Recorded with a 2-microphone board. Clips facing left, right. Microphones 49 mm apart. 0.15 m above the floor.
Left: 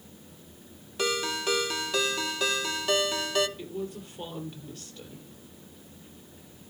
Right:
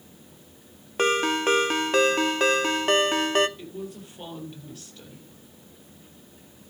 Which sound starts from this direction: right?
A ringtone, at 1.0 s.